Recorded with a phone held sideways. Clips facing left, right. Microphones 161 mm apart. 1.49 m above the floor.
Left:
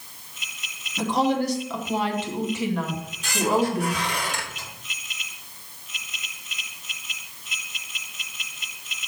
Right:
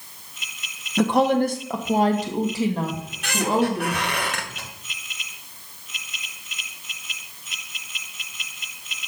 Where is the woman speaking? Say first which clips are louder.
Right 4 dB; 65° right (ahead or behind), 0.8 m; by 3.9 s 25° right (ahead or behind), 2.5 m.